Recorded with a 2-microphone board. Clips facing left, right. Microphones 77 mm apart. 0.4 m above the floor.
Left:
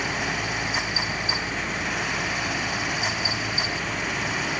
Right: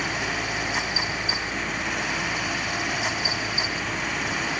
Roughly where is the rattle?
No rattle in this recording.